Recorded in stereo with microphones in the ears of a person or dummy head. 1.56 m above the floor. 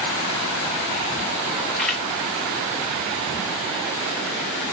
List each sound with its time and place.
1.8 s a camera shutter: 5° left (ahead or behind), 1.0 m